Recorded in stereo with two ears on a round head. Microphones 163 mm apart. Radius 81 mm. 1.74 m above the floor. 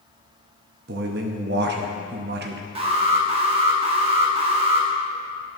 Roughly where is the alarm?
Right.